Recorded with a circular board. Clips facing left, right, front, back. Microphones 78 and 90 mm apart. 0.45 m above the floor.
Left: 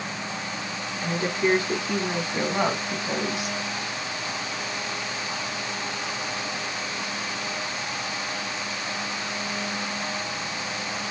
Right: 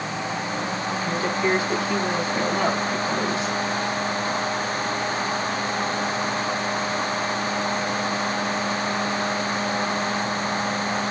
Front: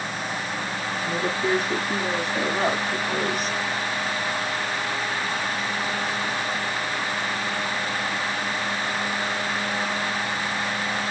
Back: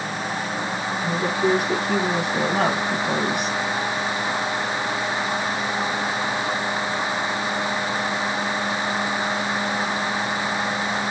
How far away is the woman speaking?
About 4 m.